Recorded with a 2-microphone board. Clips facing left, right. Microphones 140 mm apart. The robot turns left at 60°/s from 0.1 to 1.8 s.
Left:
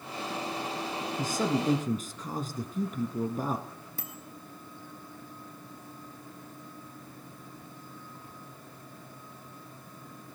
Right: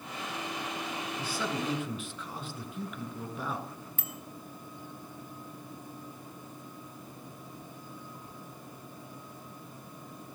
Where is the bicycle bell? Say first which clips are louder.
Left 3 dB; 35° left (ahead or behind), 2 m.